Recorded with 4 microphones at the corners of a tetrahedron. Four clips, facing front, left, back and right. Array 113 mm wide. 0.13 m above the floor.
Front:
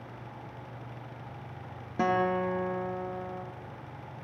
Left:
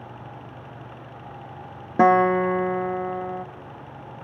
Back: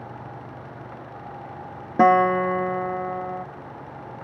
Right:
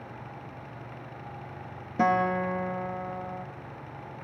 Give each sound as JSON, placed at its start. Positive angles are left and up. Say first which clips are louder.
{"t": 2.0, "sound": "a guitar", "louder": "left 8 dB, back 11 dB", "azimuth_deg": 130, "distance_m": 1.4}